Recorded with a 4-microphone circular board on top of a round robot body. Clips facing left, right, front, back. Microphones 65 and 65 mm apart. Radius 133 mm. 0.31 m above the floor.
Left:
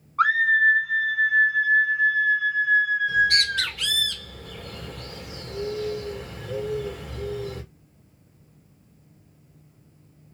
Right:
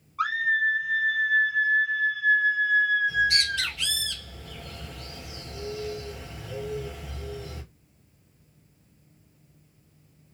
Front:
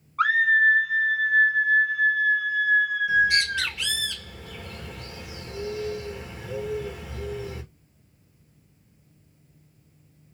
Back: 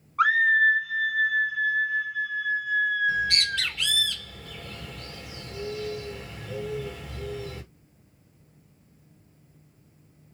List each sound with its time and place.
0.2 s a scream: 100° left, 1.1 m; by 3.8 s 15° left, 3 m
3.1 s a bird: 70° left, 2.5 m